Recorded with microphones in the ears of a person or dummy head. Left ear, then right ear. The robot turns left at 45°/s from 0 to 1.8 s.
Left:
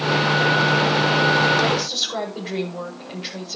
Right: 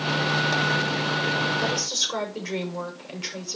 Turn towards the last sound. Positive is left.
turn(degrees=-85)